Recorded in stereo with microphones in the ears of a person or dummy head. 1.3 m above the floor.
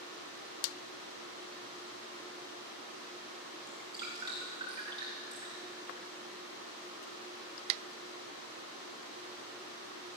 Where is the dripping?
30° right (ahead or behind), 3 m.